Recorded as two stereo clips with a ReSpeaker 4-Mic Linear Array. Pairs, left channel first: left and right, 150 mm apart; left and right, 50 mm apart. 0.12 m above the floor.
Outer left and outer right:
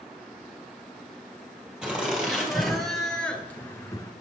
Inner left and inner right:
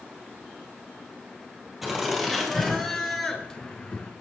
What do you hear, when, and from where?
1.8 s laughter: 5° right (ahead or behind), 4 m; by 4.1 s 25° left (ahead or behind), 1.9 m